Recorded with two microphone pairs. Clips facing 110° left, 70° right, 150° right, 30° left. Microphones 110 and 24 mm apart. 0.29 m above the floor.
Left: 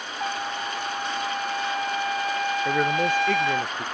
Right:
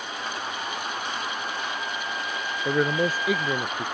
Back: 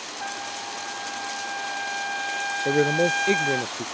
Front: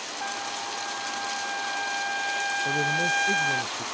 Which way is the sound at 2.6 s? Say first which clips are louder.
Right 1 dB, back 6 dB; 150° right.